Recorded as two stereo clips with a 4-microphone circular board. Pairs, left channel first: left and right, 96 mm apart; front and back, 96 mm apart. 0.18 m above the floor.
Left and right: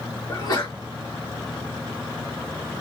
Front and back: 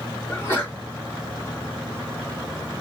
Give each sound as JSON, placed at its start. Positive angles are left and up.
{"t": 0.3, "sound": "a sneeze", "azimuth_deg": 55, "distance_m": 2.0}